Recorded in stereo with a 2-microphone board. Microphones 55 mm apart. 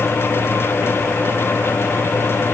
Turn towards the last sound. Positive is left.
No sound to turn to.